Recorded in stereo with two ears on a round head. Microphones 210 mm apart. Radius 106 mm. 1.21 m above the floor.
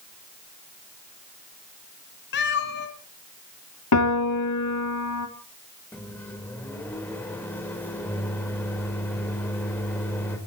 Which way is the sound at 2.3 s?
50° left (ahead or behind).